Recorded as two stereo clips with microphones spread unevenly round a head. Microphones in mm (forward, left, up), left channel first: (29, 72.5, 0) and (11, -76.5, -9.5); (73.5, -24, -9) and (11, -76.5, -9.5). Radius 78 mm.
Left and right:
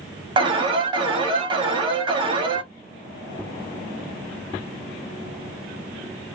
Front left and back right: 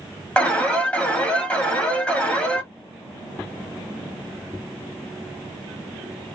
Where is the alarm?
35° right, 1.4 m.